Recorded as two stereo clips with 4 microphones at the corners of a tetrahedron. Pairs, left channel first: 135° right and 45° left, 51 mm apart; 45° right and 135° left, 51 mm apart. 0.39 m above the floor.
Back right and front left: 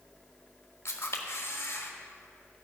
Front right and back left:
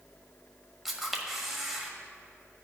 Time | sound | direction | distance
0.8 | a camera shutter | 140° right | 1.4 m